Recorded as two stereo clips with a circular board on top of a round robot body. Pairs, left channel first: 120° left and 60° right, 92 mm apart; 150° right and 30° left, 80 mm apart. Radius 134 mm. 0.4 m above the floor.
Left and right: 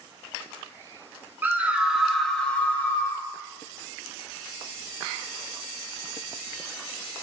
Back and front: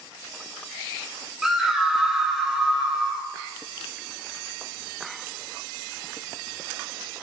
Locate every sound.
1.4 s a scream: 50° right, 1.4 m; by 3.3 s 110° left, 1.5 m